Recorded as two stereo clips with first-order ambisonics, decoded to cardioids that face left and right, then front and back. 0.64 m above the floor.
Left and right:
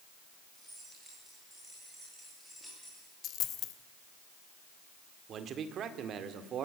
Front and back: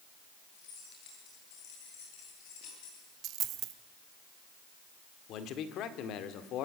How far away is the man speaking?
About 1.9 m.